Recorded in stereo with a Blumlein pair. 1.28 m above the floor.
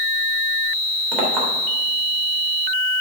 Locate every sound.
1.1 s a clink: 25° right, 3 m